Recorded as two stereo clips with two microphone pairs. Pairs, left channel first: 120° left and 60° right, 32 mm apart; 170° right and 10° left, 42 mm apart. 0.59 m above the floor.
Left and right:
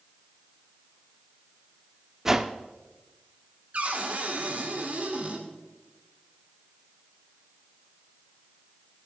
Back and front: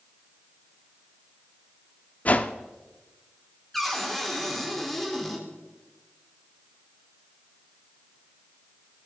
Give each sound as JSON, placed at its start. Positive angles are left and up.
{"t": 2.2, "sound": "a whoosh", "azimuth_deg": -135, "distance_m": 0.5}
{"t": 3.7, "sound": "a cupboard door", "azimuth_deg": -90, "distance_m": 1.9}